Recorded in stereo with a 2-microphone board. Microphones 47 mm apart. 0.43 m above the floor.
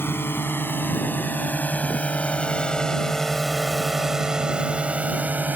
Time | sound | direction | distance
0.0 | a drone | 50° left (ahead or behind) | ?